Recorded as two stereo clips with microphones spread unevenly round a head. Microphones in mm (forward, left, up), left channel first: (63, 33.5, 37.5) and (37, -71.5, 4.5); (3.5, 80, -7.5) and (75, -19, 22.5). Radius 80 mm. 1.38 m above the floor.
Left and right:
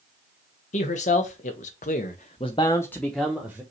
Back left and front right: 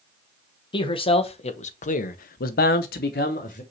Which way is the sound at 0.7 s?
75° left.